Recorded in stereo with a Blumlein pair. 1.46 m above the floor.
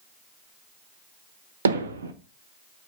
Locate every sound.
1.6 s hammering: 65° right, 1.1 m